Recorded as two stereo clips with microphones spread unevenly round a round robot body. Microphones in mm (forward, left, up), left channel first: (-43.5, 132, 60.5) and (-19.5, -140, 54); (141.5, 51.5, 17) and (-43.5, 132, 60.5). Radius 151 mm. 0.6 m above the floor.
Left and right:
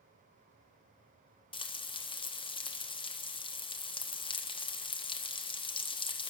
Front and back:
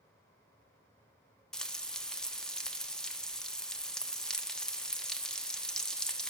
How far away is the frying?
About 1.2 m.